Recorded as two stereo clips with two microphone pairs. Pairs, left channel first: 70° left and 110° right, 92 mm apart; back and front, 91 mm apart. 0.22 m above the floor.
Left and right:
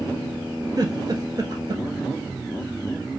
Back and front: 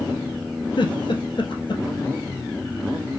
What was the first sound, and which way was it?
A giggle, 160° right.